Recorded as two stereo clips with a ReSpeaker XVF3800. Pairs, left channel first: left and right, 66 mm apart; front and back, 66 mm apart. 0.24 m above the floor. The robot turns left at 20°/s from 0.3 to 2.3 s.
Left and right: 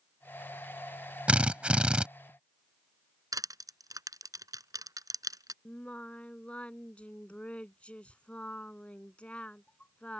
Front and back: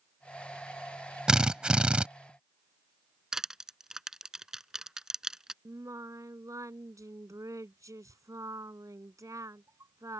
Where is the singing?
160° left.